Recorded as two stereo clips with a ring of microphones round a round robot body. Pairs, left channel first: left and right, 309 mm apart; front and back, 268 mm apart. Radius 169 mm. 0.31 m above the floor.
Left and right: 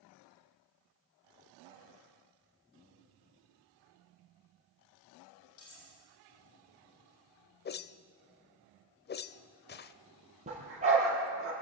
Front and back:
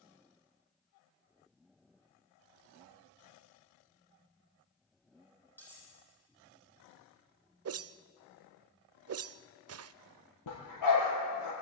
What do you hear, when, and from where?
5.6 s cutlery clinking: 85° left, 9 m
7.7 s a whoosh: 145° left, 0.6 m
10.5 s a dog barking: 20° right, 5.5 m